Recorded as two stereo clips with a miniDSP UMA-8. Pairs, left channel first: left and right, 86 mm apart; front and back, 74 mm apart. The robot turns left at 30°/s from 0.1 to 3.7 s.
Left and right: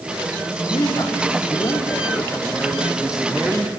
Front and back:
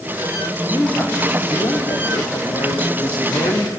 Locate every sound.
0.7 s a man speaking: 70° left, 4.5 m; by 3.7 s 20° right, 4.5 m